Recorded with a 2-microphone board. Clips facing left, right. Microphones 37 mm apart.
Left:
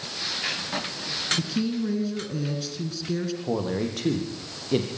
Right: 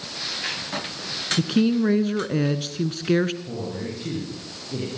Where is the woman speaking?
50° right (ahead or behind), 1.5 m.